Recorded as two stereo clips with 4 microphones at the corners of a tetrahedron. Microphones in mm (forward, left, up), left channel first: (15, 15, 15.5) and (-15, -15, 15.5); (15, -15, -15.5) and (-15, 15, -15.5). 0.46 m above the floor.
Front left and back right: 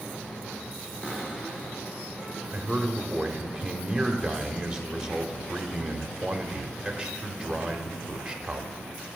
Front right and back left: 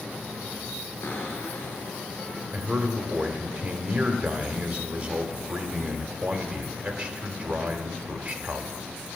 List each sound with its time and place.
1.0 s a cupboard door: 15° right, 3 m
2.5 s a man speaking: 160° left, 1.1 m